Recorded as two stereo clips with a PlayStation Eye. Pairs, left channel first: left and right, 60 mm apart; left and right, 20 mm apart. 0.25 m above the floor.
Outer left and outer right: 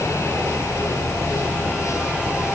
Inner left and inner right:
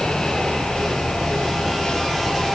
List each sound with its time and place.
Only background noise.